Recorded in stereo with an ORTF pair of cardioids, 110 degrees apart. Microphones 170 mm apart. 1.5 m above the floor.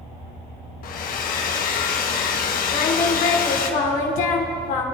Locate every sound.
0.8 s a hair dryer: 65° left, 1.1 m
2.7 s singing: 65° left, 1.9 m